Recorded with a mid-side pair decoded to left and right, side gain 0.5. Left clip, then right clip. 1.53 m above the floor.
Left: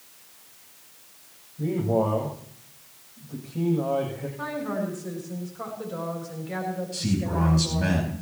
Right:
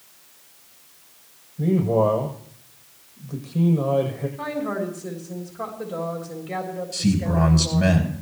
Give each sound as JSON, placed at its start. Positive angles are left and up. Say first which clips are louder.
{"t": 1.6, "sound": "a man speaking", "louder": "right 4 dB", "azimuth_deg": -50, "distance_m": 8.5}
{"t": 4.4, "sound": "a woman speaking", "louder": "right 2 dB", "azimuth_deg": -60, "distance_m": 4.0}
{"t": 6.9, "sound": "a man speaking", "louder": "right 8 dB", "azimuth_deg": -65, "distance_m": 10.0}